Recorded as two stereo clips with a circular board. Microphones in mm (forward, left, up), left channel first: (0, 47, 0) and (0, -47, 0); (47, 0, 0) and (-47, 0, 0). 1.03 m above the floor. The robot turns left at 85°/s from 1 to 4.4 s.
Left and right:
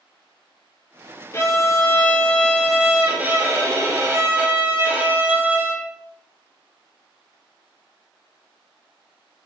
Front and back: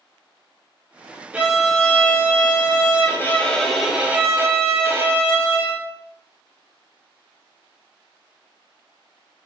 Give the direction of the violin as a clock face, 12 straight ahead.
8 o'clock.